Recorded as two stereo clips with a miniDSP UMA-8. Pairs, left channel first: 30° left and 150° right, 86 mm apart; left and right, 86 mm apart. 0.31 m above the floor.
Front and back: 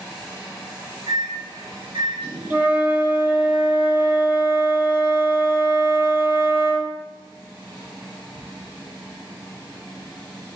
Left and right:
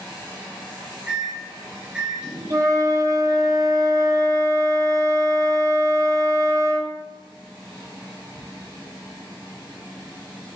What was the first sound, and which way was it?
A microwave, 170° right.